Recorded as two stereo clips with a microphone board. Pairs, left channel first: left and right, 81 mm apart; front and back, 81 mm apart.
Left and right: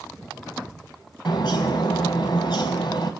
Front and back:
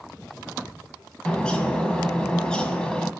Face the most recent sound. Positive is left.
turn(degrees=80)